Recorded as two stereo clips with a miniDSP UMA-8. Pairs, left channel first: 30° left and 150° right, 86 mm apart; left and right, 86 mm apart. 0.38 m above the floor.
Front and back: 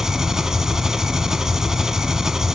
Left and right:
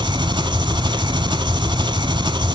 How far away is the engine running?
About 1.1 m.